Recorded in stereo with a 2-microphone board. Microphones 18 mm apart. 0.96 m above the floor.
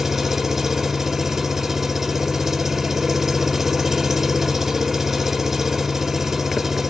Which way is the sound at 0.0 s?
20° right (ahead or behind).